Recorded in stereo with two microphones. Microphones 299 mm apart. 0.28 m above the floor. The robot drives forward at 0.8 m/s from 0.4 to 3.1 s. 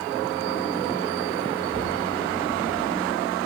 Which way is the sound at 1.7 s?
40° left (ahead or behind).